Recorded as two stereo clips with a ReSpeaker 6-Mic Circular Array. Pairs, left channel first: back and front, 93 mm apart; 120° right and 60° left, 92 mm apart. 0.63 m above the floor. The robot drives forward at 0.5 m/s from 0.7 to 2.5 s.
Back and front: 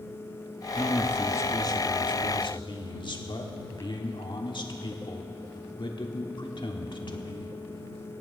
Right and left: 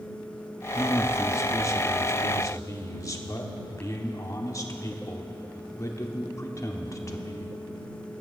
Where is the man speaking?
115° right, 0.6 m; by 7.5 s 170° right, 1.1 m.